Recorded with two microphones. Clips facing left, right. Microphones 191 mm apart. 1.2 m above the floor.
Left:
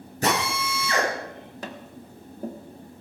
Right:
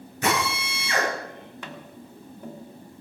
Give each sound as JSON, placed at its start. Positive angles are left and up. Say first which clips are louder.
{"t": 0.2, "sound": "a drill", "louder": "left 1 dB", "side_deg": 35, "distance_m": 9.5}
{"t": 1.6, "sound": "tapping", "louder": "left 5 dB", "side_deg": 35, "distance_m": 1.6}